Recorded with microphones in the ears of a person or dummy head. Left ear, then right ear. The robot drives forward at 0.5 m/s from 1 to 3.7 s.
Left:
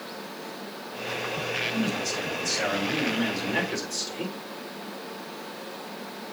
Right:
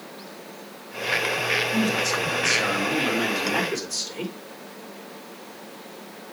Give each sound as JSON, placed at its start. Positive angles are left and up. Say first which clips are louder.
{"t": 1.7, "sound": "a man speaking", "louder": "right 5 dB", "side_deg": -40, "distance_m": 2.5}